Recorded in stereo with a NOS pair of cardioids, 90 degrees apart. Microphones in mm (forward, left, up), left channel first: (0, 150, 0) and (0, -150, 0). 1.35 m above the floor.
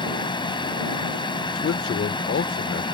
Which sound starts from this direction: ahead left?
A man speaking, at 1.6 s.